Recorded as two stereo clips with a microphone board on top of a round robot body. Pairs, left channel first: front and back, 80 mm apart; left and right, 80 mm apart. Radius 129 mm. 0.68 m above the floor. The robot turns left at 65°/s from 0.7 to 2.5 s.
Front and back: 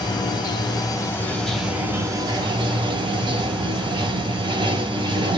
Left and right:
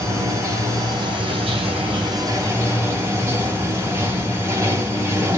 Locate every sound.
0.0 s running water: 35° right, 0.8 m; by 5.4 s 155° right, 0.8 m